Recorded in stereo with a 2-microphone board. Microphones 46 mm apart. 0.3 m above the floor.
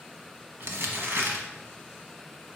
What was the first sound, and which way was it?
Crumpling, 60° right (ahead or behind).